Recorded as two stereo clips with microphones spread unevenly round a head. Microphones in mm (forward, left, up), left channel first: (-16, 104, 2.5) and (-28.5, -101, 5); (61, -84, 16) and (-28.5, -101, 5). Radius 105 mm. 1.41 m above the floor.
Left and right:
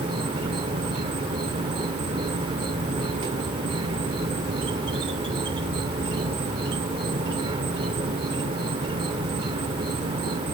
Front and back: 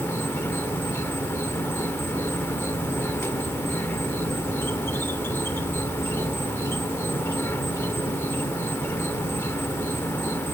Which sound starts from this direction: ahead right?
An insect, at 0.0 s.